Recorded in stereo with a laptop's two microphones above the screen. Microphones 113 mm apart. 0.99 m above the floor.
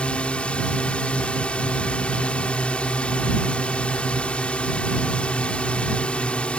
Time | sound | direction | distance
0.0 | a drone | 10° left (ahead or behind) | ?